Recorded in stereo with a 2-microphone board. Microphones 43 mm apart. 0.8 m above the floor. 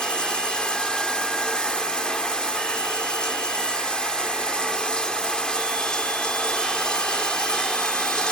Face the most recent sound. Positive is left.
turn(degrees=20)  # may be behind; listen again after turning